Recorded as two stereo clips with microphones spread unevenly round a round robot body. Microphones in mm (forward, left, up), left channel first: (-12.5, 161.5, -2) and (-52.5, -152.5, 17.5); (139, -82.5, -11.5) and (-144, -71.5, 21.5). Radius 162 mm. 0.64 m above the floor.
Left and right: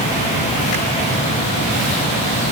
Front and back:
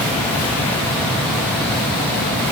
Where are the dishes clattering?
No dishes clattering in this recording.